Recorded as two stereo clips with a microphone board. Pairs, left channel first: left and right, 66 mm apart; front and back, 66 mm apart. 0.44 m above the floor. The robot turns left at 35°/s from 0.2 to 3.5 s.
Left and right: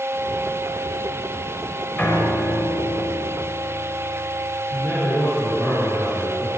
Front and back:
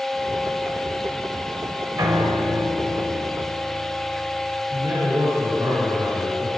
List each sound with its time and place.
2.0 s a piano: 160° left, 1.4 m; by 4.6 s 105° left, 1.4 m
4.7 s a man speaking: 165° left, 6 m